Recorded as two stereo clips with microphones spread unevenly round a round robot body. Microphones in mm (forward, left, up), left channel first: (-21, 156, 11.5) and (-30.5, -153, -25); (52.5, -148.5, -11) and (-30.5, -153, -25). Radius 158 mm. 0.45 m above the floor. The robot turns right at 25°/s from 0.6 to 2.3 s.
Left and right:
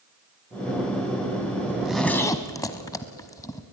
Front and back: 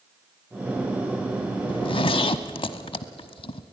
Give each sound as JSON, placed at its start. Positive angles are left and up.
{"t": 1.7, "sound": "a zipper", "azimuth_deg": -10, "distance_m": 0.9}